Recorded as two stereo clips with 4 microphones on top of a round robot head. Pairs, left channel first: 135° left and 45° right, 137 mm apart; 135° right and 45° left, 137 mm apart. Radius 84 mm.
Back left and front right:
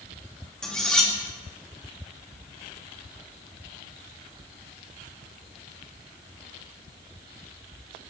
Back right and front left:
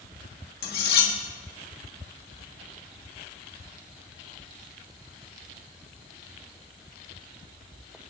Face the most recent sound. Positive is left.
turn(degrees=-140)